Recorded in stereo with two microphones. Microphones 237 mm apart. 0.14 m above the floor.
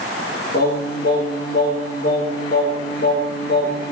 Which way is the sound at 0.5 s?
55° left (ahead or behind).